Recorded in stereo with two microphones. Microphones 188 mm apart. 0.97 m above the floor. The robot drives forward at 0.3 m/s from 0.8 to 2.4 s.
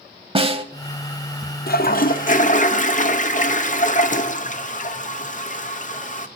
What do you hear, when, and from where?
0.3 s a snare drum: 30° right (ahead or behind), 0.9 m
1.7 s a toilet flushing: 55° left (ahead or behind), 0.6 m; by 6.3 s 45° left (ahead or behind), 0.7 m